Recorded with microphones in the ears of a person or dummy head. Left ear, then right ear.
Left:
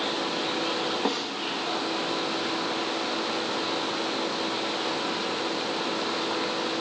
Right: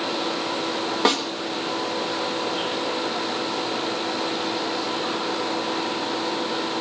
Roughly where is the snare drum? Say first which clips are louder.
Right 12 dB; right.